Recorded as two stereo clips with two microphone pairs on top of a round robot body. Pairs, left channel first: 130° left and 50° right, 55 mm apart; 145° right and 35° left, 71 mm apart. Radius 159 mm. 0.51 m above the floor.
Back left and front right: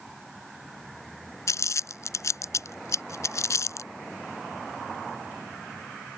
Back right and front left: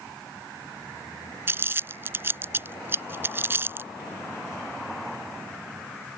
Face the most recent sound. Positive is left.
turn(degrees=95)